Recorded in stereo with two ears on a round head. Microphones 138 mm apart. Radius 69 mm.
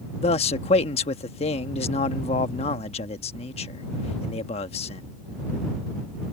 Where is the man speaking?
40° left (ahead or behind).